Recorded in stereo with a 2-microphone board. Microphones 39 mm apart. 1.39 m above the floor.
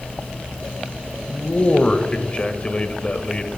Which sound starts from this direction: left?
A man speaking, at 1.3 s.